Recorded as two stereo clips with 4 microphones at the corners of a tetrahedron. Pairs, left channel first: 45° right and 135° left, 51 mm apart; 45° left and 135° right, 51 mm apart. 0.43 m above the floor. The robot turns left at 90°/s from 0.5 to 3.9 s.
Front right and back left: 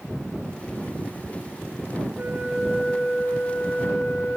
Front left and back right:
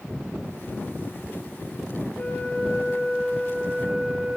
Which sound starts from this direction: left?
A flute, at 2.2 s.